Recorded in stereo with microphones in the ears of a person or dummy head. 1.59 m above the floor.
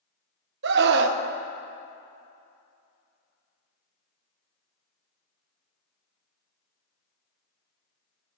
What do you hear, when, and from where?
0.6 s a scream: 60° right (ahead or behind), 1.1 m